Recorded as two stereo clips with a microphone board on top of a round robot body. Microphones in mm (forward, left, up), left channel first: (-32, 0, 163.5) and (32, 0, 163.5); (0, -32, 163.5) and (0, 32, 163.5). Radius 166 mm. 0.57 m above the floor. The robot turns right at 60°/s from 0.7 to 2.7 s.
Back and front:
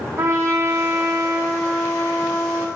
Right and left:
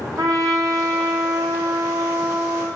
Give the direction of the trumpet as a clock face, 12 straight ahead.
10 o'clock.